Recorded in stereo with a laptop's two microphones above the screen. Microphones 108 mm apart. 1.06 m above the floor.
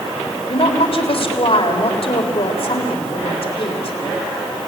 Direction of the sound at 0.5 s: 60° left (ahead or behind).